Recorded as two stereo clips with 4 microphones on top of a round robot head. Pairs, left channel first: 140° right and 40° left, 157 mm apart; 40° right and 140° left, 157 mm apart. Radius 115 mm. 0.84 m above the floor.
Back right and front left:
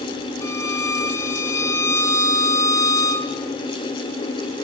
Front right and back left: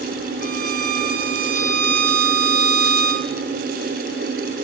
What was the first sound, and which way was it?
A violin, 150° left.